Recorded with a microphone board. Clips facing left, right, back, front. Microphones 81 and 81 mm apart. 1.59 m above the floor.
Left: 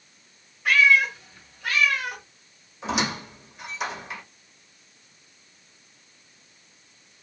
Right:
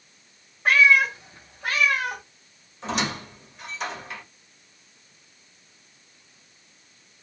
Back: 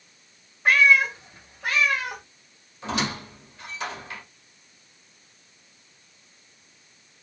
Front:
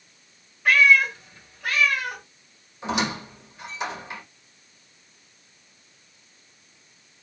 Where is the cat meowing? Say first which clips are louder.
Right 1 dB, front 1 dB; 130° right, 1.6 m.